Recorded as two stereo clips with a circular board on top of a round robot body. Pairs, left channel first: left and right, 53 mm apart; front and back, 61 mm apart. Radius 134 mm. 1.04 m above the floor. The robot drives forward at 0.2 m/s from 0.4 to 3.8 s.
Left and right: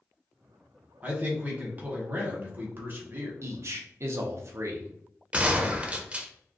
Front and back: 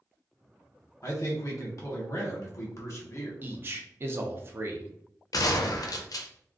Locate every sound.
1.0 s a man speaking: 25° right, 1.3 m; by 3.3 s 40° right, 0.9 m
3.4 s a man speaking: 120° right, 0.6 m; by 4.9 s 125° right, 0.6 m
5.3 s a gunshot: 20° right, 0.5 m